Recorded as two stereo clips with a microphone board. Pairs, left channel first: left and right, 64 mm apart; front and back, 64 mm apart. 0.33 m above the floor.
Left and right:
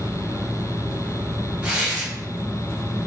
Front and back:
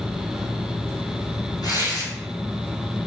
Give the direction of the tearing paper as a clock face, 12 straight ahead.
1 o'clock.